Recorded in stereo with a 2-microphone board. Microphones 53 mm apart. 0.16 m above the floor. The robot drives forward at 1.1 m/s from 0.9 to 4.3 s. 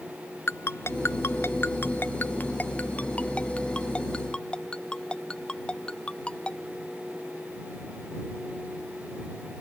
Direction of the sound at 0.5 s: 55° left (ahead or behind).